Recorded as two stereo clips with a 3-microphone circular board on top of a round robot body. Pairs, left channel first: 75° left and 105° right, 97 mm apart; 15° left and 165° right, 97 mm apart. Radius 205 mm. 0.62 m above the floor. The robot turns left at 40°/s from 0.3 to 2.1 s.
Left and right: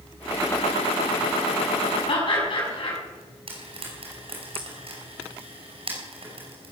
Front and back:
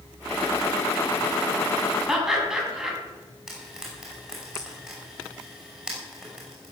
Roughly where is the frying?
Right.